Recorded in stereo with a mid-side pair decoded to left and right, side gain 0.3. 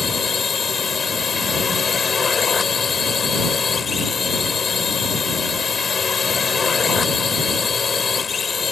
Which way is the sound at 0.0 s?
55° left.